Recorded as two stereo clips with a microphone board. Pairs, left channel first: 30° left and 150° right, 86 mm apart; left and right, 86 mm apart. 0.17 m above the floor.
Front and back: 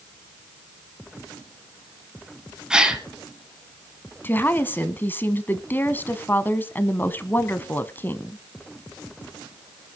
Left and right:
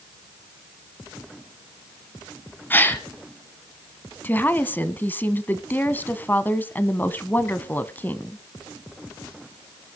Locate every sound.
2.7 s a gasp: 140° left, 1.8 m
4.2 s a woman speaking: 55° left, 1.0 m